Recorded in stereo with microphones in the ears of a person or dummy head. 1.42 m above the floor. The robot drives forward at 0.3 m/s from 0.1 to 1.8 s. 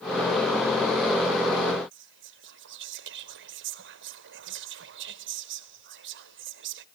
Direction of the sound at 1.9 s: 50° right (ahead or behind).